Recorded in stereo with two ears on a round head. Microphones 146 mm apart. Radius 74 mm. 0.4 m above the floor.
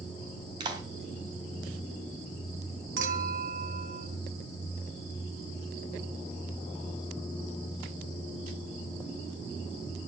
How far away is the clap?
About 2.5 m.